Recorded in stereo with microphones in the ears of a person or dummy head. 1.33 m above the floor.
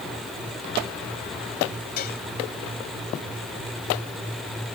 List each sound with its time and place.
2.0 s dishes clattering: 50° left (ahead or behind)